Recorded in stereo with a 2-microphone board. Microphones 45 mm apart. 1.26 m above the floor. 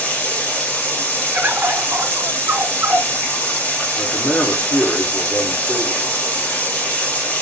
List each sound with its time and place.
0.0 s running water: 40° left (ahead or behind), 1.5 m
1.3 s a bird: 60° right (ahead or behind), 1.0 m
4.0 s a man speaking: 65° left (ahead or behind), 1.7 m